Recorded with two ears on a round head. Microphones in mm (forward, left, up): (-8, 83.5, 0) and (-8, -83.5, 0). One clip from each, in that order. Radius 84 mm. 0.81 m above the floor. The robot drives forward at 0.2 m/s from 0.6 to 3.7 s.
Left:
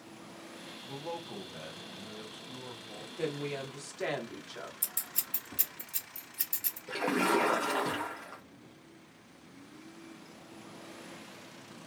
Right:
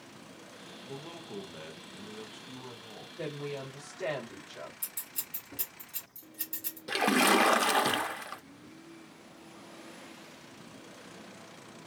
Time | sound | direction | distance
0.8 | a man speaking | 15° right (ahead or behind) | 0.7 m
3.2 | a woman speaking | 40° left (ahead or behind) | 1.6 m
4.8 | scissors | 25° left (ahead or behind) | 1.6 m
6.9 | a splash | 75° right (ahead or behind) | 0.5 m